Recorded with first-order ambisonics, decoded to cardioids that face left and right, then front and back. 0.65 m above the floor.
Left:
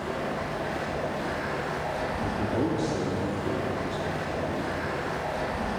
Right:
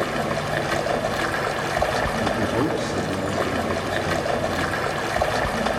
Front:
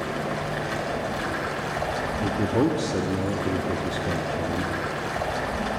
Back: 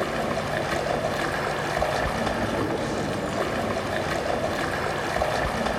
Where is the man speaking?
25° right, 0.8 m.